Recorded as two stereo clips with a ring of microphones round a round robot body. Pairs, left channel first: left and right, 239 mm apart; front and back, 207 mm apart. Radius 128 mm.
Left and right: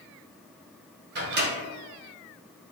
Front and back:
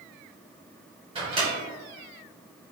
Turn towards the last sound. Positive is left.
turn(degrees=-120)